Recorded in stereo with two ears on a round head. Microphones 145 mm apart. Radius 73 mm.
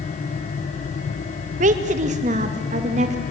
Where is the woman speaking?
45° right (ahead or behind), 1.9 m.